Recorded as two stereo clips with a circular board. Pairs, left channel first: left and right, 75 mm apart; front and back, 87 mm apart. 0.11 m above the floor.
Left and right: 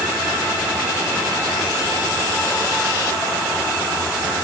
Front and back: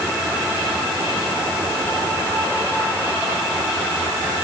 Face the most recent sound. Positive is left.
No sound to turn to.